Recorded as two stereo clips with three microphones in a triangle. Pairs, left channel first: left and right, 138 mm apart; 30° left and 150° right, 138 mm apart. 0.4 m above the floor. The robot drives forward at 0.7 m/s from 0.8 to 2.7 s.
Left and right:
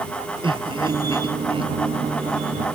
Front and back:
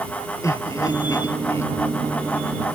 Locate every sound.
0.4 s laughter: 35° right; by 1.7 s 40° right